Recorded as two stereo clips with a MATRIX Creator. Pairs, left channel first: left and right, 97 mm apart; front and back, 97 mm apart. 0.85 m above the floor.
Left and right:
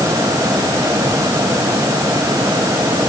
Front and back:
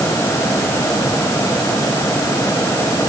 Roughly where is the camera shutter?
I don't hear a camera shutter.